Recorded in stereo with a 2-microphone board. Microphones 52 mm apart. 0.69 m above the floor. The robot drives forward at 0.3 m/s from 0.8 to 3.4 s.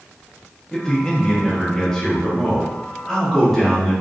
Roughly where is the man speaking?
Centre.